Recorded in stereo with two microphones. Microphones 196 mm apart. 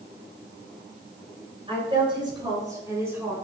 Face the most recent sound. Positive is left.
turn(degrees=-10)  # may be behind; listen again after turning